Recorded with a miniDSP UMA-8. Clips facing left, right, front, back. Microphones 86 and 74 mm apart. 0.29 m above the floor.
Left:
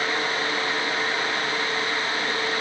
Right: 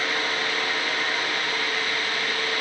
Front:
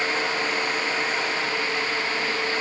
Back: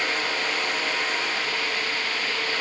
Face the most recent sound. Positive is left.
No sound to turn to.